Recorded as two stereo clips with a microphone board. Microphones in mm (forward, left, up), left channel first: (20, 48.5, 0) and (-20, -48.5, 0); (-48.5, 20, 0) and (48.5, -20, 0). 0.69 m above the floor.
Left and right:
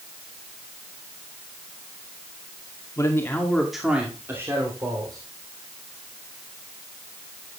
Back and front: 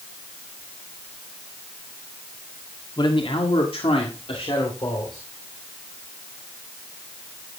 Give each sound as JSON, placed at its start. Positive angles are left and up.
{"t": 3.0, "sound": "a man speaking", "azimuth_deg": 125, "distance_m": 1.7}